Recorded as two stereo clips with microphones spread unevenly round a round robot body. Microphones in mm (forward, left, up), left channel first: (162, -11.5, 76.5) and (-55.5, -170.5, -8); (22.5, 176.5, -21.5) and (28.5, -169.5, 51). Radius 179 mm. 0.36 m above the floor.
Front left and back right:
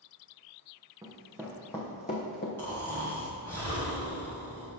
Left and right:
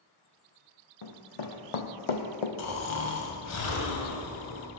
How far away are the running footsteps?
About 1.1 m.